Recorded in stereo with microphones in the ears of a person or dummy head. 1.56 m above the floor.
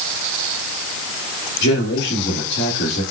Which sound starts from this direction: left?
A man speaking, at 1.6 s.